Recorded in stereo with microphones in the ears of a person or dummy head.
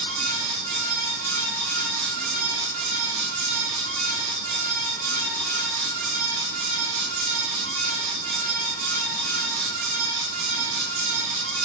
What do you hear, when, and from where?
0.0 s a fan: 70° right (ahead or behind), 4.5 m